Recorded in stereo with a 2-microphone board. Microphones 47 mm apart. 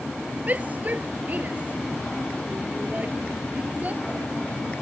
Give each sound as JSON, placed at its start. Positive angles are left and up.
{"t": 0.5, "sound": "a shout", "side_deg": -35}